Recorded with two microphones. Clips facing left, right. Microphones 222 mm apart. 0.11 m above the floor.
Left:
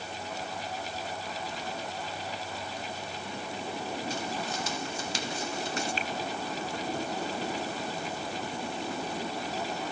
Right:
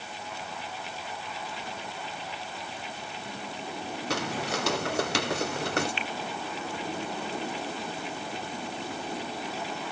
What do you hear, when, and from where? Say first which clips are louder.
4.1 s footsteps: right 3 dB; 70° right (ahead or behind); by 5.9 s 65° right (ahead or behind)
6.0 s a finger snap: left 1 dB; 40° left (ahead or behind)